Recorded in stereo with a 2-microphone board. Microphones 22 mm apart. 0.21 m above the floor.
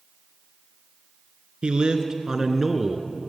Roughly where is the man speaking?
Right.